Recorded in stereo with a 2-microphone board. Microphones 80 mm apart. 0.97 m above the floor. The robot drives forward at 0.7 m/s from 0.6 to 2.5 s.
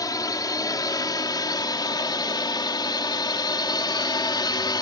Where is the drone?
55° left (ahead or behind); by 4.8 s 65° left (ahead or behind).